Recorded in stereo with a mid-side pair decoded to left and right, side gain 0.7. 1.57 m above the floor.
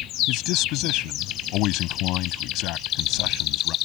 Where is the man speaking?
60° left.